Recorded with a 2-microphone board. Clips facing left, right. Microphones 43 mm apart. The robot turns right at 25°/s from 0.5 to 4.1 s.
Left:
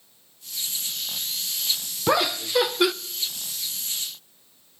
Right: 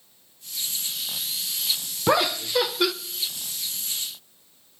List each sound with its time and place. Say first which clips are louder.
2.1 s laughter: right 1 dB; 5° right (ahead or behind), 0.6 m; by 2.9 s 10° left (ahead or behind), 0.6 m